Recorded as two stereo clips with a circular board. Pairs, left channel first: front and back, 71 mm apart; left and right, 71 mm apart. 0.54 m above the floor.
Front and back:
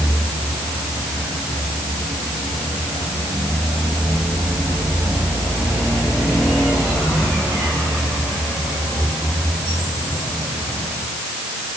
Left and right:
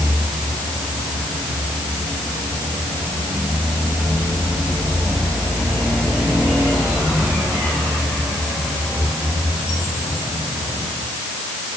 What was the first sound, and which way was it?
Only background noise.